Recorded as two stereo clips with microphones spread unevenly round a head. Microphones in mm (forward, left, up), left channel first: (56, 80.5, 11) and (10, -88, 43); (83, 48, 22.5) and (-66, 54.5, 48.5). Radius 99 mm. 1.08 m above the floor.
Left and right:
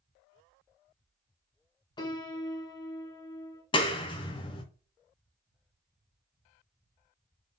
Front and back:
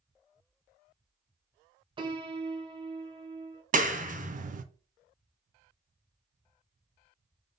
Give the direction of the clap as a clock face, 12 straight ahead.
7 o'clock.